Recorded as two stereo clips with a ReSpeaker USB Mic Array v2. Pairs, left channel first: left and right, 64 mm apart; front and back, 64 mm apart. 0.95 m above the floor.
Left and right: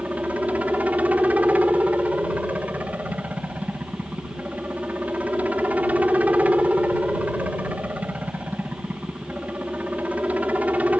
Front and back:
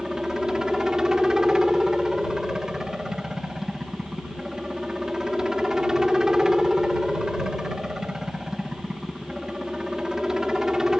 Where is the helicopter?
110° right.